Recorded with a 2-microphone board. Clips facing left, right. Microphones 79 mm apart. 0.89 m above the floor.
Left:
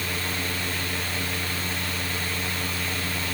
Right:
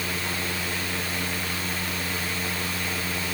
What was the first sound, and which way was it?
Only background noise.